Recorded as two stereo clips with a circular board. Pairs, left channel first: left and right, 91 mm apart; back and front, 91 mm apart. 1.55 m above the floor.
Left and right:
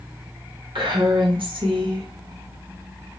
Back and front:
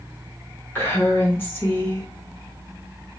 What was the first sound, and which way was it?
A woman speaking, 110° right.